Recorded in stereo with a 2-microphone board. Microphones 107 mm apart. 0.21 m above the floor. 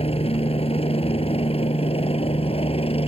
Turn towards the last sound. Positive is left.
turn(degrees=65)  # may be behind; listen again after turning